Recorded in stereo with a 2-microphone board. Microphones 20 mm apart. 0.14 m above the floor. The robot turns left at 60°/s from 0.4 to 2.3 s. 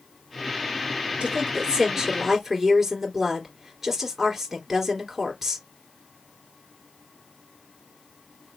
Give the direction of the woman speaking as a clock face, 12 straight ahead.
3 o'clock.